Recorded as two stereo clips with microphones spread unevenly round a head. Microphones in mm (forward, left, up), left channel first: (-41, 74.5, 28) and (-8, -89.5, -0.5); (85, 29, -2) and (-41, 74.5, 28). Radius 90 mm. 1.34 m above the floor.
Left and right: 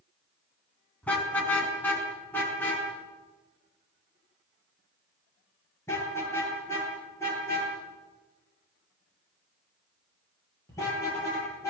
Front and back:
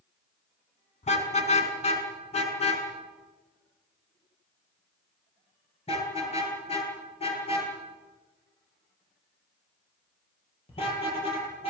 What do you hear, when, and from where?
1.0 s a car horn: 20° left, 5 m; by 11.7 s 30° left, 14.5 m